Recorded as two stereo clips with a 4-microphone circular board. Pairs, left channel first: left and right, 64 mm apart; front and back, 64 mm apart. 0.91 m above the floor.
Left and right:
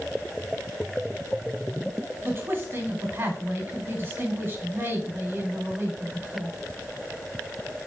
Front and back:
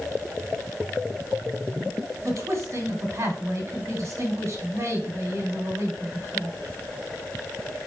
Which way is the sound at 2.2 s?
145° right.